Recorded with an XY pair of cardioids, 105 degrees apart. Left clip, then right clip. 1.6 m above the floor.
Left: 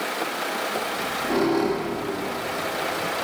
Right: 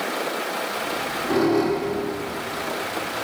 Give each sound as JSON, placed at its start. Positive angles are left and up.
{"t": 0.8, "sound": "a squeak", "azimuth_deg": 15, "distance_m": 2.0}